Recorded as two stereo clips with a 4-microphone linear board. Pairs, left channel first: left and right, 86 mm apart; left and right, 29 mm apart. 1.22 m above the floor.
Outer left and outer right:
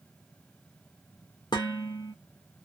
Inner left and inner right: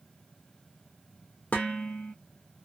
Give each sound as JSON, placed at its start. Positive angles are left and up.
{"t": 1.5, "sound": "dishes clattering", "side_deg": 55, "distance_m": 0.9}